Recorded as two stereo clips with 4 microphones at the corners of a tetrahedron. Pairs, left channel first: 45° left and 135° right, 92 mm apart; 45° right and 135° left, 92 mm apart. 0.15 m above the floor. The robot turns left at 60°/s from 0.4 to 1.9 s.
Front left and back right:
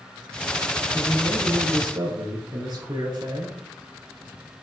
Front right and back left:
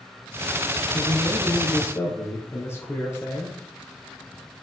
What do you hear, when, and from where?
0.9 s a man speaking: 45° right, 2.5 m; by 3.6 s 105° right, 2.5 m